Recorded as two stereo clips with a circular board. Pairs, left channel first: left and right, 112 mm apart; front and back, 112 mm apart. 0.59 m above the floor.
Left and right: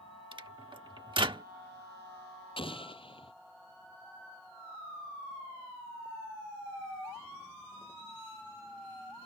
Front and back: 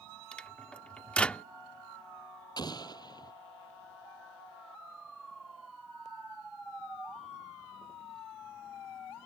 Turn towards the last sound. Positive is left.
turn(degrees=55)